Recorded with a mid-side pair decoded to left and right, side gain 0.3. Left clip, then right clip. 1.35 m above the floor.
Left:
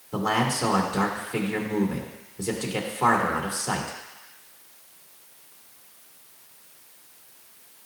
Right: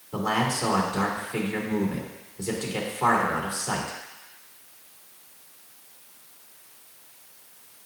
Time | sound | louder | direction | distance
0.1 | a man speaking | left 1 dB | 40° left | 2.5 m